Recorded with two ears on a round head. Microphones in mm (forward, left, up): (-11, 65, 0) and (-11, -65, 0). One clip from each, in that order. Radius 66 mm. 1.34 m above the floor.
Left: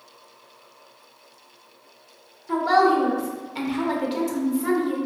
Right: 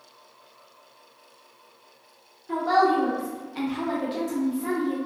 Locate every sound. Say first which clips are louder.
2.5 s a woman speaking: left 3 dB; 15° left (ahead or behind), 0.7 m